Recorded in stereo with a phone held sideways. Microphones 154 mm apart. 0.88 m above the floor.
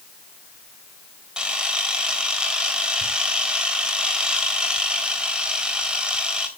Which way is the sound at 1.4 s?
5° right (ahead or behind).